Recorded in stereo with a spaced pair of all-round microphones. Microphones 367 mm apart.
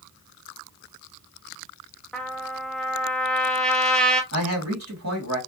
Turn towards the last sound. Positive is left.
turn(degrees=-45)  # may be behind; listen again after turning